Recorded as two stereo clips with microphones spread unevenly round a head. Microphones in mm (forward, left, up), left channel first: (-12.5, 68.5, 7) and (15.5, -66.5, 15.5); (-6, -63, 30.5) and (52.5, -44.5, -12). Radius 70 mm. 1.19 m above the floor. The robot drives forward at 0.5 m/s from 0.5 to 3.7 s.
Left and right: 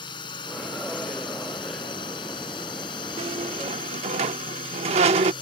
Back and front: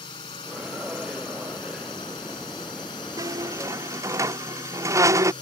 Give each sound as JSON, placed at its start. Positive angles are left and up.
{"t": 0.0, "sound": "a drone", "azimuth_deg": 160}
{"t": 3.2, "sound": "a squeak", "azimuth_deg": -35}